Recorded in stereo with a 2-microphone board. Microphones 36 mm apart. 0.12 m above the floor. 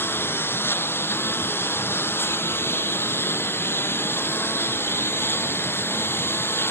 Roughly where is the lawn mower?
Left.